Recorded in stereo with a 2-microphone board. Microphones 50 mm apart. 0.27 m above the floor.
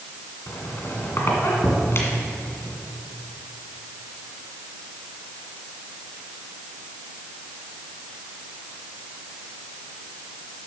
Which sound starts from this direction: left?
A squeak, at 0.5 s.